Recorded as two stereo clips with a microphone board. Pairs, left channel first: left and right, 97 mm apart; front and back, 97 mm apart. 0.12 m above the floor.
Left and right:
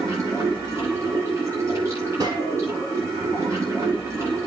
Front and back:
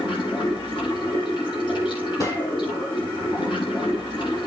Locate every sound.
0.0 s running water: 30° right, 9 m
2.2 s a gunshot: 50° right, 3 m